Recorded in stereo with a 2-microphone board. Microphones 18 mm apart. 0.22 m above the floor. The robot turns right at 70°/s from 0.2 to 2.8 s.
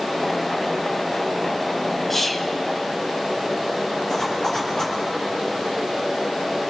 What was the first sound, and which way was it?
Whispering, 20° left (ahead or behind).